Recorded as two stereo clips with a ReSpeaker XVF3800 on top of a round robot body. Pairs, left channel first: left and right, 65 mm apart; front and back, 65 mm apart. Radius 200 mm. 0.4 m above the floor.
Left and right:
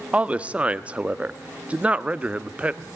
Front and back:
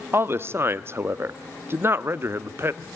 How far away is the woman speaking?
About 0.9 m.